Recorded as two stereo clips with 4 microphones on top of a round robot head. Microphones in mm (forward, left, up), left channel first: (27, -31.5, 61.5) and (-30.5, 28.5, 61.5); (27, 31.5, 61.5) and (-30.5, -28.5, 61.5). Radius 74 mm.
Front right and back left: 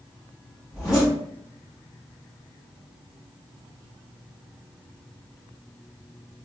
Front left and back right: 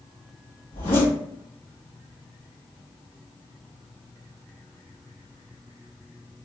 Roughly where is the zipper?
Ahead left.